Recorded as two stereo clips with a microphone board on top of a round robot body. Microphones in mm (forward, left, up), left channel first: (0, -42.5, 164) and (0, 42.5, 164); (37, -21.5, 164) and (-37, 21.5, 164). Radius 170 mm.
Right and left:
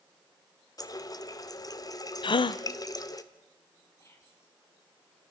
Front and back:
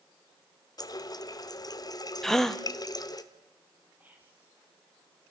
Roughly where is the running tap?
Ahead right.